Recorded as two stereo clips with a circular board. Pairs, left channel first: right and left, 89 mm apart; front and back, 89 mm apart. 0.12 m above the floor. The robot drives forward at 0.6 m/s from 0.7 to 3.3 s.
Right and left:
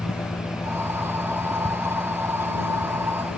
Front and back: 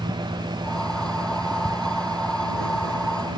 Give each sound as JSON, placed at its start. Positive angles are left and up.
{"t": 0.0, "sound": "an engine running", "azimuth_deg": -150}